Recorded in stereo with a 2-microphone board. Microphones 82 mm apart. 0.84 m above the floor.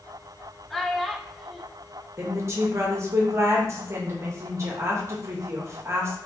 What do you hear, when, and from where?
0.7 s a child speaking: 5° left (ahead or behind), 0.5 m
2.2 s a woman speaking: 35° right (ahead or behind), 0.9 m